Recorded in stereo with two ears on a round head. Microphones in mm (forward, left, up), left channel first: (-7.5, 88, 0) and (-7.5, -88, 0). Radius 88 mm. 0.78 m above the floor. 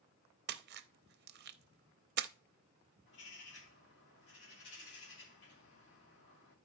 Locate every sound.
0.5 s a splash: 55° right (ahead or behind), 0.5 m
3.1 s a bird: 60° left (ahead or behind), 2.5 m